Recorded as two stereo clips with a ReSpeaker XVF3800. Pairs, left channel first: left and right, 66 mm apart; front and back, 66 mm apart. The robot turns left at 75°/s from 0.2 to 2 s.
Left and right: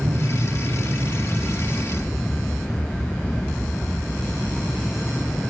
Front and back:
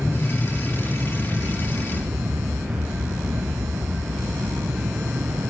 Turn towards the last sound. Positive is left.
turn(degrees=170)